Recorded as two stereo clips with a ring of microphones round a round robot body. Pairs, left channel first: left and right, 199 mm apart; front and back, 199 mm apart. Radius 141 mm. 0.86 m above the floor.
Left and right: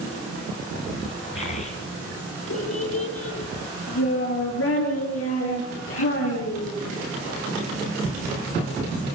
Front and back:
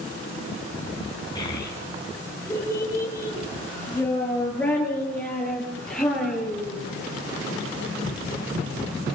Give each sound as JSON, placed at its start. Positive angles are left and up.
{"t": 1.4, "sound": "a child speaking", "azimuth_deg": 70, "distance_m": 8.0}